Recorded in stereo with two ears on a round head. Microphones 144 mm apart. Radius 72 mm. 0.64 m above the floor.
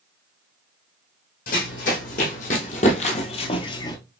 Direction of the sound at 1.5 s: 55° left (ahead or behind).